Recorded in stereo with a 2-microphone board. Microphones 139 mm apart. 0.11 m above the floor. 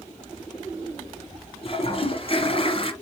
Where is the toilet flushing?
40° left (ahead or behind), 1.9 m.